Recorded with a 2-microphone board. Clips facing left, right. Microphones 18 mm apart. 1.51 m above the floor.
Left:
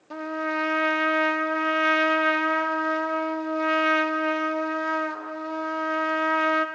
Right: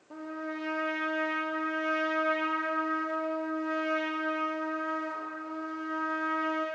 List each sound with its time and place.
0.1 s a trumpet: 75° left (ahead or behind), 0.6 m